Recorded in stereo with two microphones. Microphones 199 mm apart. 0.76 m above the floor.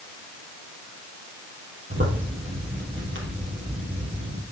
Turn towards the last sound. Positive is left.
turn(degrees=-75)  # may be behind; listen again after turning